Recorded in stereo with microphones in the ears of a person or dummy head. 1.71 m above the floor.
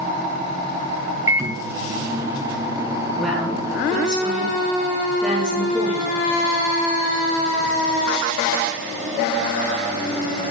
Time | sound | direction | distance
1.3 | a microwave | 15° right (ahead or behind) | 0.6 m
3.1 | a woman speaking | centre (ahead or behind) | 5.5 m